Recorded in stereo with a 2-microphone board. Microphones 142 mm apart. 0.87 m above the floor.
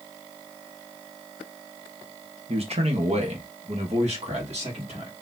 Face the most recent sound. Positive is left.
turn(degrees=-45)  # may be behind; listen again after turning